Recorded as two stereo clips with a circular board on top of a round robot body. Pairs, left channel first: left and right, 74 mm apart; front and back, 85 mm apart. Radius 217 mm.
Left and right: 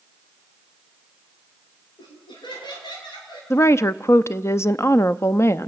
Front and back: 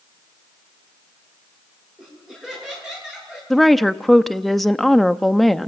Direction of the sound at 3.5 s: 90° left.